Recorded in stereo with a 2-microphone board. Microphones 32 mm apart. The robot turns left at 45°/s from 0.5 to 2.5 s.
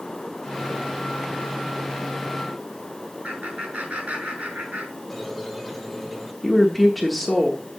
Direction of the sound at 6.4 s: 5° left (ahead or behind).